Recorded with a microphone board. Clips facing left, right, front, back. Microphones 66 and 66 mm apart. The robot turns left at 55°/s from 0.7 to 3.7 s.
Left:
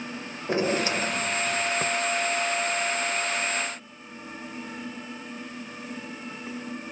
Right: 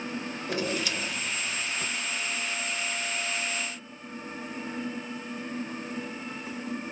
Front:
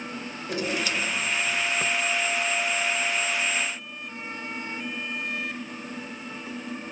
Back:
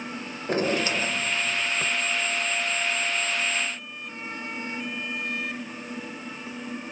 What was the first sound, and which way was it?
A drawer, 140° left.